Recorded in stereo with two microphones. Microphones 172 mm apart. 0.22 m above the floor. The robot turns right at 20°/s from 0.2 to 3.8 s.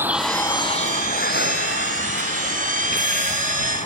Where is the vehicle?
10° right (ahead or behind); by 3.9 s 35° left (ahead or behind).